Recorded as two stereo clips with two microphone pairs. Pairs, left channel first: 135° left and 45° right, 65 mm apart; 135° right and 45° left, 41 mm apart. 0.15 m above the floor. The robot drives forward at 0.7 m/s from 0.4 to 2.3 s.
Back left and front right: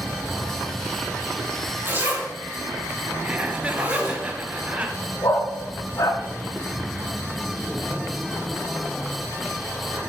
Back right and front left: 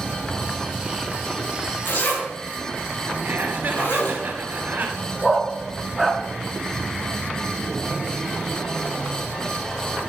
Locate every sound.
1.9 s a zipper: 105° right, 5 m
3.2 s laughter: 20° left, 2.5 m
5.2 s a dog barking: 135° left, 4 m